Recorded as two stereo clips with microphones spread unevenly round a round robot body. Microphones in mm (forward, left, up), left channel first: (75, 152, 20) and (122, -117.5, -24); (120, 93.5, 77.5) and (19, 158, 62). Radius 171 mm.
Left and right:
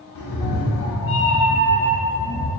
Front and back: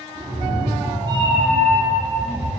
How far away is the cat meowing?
About 0.7 m.